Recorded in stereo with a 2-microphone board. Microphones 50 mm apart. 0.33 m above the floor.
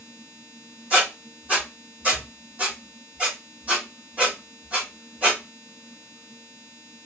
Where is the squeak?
30° right (ahead or behind), 1.9 m.